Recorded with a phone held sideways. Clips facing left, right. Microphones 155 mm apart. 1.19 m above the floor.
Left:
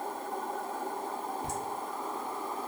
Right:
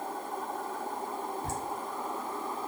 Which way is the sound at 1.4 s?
15° left (ahead or behind).